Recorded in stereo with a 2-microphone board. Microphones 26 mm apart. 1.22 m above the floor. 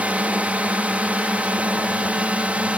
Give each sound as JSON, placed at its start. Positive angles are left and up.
{"t": 0.0, "sound": "a drone", "side_deg": -60}